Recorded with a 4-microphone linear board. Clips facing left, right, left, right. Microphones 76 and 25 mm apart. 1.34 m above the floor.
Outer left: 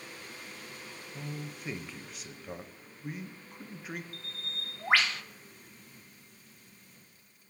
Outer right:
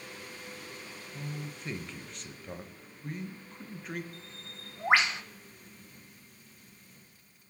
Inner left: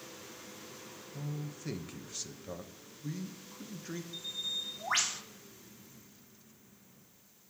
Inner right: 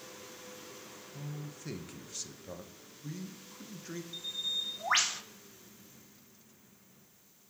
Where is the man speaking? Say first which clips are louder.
Even, inner left 3 dB; 5° left (ahead or behind), 0.9 m.